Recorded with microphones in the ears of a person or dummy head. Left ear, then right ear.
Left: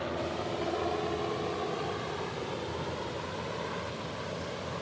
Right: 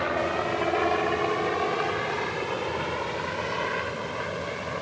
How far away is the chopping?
I don't hear chopping.